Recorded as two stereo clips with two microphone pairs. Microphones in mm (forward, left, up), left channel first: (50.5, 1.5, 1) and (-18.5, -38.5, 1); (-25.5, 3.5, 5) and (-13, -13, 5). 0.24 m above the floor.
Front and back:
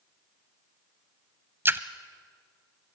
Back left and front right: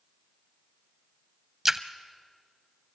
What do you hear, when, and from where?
1.6 s a splash: 115° right, 0.7 m